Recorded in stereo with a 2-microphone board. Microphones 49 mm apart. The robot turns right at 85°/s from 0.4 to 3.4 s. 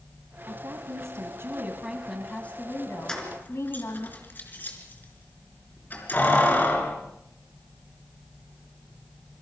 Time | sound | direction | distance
0.5 | a woman speaking | 140° right | 2.5 m
3.1 | keys jangling | 10° left (ahead or behind) | 3.5 m